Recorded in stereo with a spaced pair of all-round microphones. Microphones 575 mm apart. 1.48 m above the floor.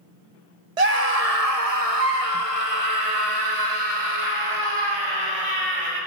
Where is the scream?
80° right, 1.5 m; by 6.0 s 50° right (ahead or behind), 6.5 m.